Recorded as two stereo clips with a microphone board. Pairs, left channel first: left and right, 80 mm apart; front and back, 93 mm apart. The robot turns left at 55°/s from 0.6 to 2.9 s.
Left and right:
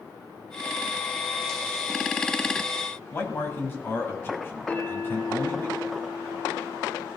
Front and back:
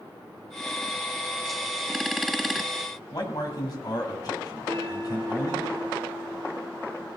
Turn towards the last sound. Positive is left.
turn(degrees=160)